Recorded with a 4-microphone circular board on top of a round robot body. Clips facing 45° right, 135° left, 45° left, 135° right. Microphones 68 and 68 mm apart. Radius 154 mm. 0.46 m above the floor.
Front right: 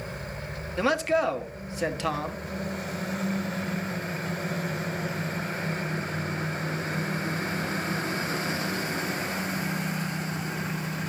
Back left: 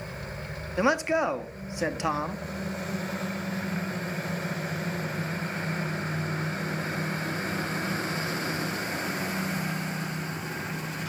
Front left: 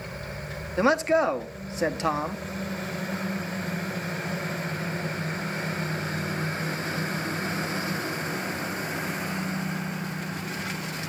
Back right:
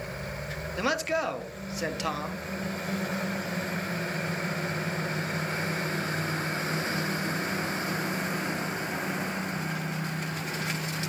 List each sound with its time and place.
0.8 s a man speaking: 75° left, 1.1 m